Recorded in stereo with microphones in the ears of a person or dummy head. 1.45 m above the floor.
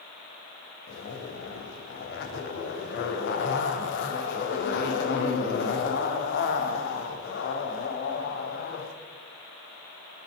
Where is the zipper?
60° left (ahead or behind), 2.5 m.